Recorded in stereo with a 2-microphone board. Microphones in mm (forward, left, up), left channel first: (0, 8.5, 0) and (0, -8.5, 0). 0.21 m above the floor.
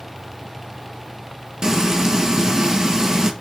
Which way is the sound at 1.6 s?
30° right (ahead or behind).